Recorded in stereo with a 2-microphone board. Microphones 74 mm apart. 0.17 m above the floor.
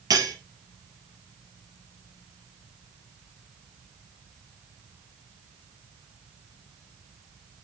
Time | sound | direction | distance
0.1 | cutlery clinking | 60° right (ahead or behind) | 2.5 m